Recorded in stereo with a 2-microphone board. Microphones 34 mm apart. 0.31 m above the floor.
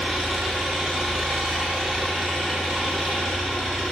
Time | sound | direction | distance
0.0 | an engine running | 5° right (ahead or behind) | 1.1 m